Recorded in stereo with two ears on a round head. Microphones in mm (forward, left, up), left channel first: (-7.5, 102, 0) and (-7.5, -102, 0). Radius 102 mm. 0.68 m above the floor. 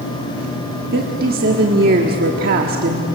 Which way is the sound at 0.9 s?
45° right (ahead or behind).